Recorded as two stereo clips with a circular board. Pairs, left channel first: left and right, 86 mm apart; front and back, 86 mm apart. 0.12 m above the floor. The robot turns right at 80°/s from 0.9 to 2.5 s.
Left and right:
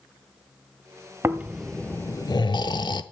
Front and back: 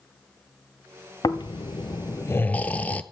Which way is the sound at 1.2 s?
30° right.